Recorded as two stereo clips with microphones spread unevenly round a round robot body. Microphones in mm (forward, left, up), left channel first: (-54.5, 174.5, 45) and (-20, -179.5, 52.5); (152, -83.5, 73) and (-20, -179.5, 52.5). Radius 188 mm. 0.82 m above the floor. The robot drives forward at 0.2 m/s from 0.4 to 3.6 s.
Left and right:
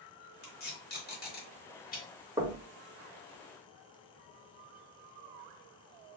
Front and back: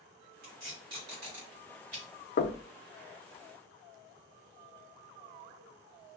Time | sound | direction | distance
0.4 | tape being pulled | 160° left | 1.7 m
2.4 | knocking | 5° right | 0.6 m